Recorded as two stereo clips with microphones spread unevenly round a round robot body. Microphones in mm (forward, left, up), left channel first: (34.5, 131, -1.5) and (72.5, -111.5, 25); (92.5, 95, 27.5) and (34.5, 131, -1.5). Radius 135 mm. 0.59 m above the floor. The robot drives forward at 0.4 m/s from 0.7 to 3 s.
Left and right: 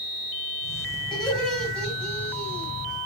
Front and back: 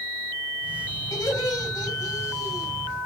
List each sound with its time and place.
1.1 s laughter: 15° left, 6.5 m